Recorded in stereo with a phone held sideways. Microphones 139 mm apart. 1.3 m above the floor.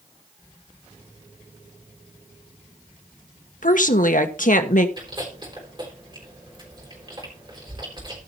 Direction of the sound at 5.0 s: 35° right (ahead or behind).